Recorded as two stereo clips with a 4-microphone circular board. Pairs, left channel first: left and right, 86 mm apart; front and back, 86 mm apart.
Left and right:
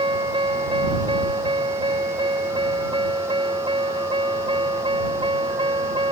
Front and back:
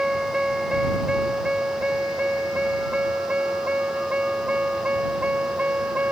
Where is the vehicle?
95° right; by 6.1 s 105° right.